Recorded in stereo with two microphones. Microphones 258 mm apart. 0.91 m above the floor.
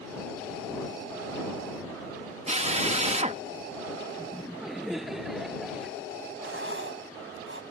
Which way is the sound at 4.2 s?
Centre (ahead or behind).